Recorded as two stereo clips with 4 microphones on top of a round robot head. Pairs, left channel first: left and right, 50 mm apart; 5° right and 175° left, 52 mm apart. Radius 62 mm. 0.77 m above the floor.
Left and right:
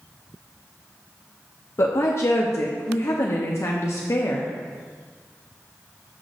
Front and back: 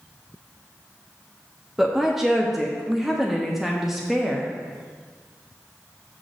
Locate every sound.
1.8 s a woman speaking: 90° left, 0.9 m